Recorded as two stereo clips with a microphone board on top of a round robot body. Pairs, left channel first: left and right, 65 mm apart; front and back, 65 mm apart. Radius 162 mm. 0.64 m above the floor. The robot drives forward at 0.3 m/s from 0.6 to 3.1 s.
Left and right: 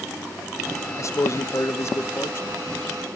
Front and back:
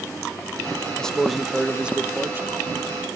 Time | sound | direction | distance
1.0 | a man speaking | 75° left | 0.6 m